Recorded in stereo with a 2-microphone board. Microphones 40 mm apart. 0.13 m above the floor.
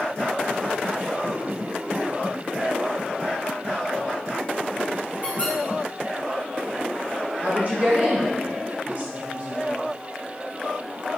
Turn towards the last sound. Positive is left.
turn(degrees=-40)  # may be behind; listen again after turning